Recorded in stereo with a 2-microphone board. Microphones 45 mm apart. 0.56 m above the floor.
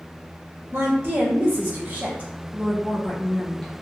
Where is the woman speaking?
60° right (ahead or behind), 1.6 m; by 3.7 s 20° left (ahead or behind), 0.8 m.